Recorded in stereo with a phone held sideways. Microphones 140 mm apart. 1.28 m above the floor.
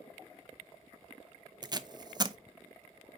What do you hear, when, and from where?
1.6 s tape being pulled: 30° right (ahead or behind), 0.5 m